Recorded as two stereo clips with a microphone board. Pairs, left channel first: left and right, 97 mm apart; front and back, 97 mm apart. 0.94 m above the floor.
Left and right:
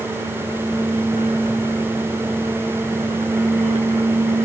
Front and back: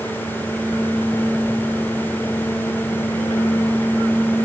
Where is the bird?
No bird in this recording.